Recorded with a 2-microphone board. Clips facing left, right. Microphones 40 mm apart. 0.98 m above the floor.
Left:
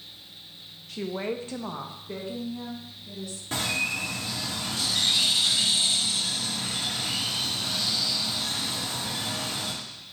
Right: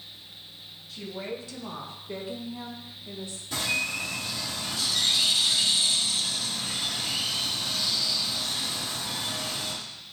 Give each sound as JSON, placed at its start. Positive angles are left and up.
{"t": 0.9, "sound": "a woman speaking", "side_deg": 70, "distance_m": 1.0}
{"t": 3.5, "sound": "a bird", "side_deg": 50, "distance_m": 1.9}